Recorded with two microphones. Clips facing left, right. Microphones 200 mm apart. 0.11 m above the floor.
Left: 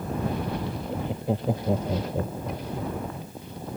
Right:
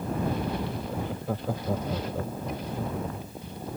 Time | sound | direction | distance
0.9 | laughter | 20° left (ahead or behind) | ?